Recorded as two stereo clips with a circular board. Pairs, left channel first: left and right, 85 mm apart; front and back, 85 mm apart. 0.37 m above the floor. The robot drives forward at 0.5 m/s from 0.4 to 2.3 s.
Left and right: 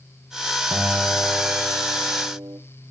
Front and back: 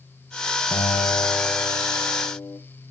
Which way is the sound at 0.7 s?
20° right.